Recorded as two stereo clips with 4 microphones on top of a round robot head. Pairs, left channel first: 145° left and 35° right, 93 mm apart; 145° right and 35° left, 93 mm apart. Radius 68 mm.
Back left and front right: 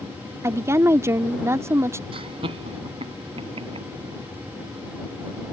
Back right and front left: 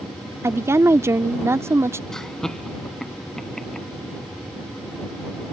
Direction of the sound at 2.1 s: 60° right.